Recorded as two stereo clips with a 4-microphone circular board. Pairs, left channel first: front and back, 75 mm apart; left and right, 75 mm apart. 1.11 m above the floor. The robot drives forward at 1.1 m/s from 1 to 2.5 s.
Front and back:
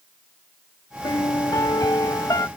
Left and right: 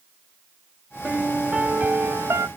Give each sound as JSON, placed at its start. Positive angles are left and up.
{"t": 1.0, "sound": "a piano", "azimuth_deg": -15}